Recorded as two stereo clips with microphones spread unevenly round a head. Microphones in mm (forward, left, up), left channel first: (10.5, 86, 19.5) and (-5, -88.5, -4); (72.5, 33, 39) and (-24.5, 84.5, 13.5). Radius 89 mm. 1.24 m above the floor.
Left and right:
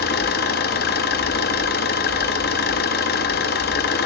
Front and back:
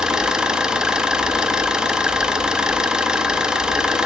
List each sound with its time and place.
0.0 s an engine running: 65° left, 1.0 m